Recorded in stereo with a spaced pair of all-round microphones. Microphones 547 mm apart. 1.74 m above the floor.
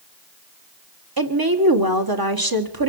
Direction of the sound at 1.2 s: 40° right (ahead or behind).